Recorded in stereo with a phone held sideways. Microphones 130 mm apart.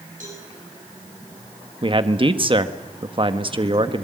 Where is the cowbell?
75° right (ahead or behind), 7 m.